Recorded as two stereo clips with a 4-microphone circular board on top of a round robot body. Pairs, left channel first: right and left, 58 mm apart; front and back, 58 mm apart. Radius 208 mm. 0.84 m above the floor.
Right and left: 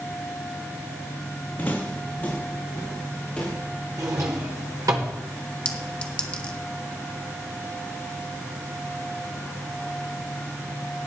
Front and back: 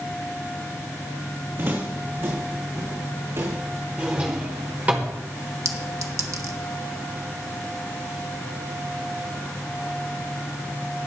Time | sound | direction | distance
1.6 | footsteps | 140° right | 3.5 m
4.0 | a drawer | 115° left | 0.8 m
5.7 | a clink | 160° right | 1.1 m